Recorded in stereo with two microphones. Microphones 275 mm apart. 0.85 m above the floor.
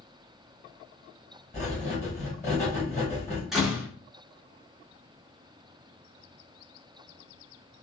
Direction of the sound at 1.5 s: 25° left (ahead or behind).